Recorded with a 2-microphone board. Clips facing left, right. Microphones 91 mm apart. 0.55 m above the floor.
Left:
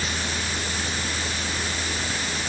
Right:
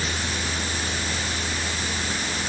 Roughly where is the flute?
I don't hear a flute.